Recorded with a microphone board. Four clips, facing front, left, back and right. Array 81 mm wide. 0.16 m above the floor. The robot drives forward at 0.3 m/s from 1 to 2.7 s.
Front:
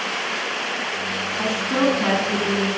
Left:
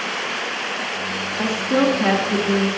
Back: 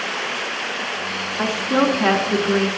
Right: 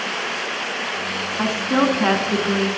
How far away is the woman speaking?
About 1.1 m.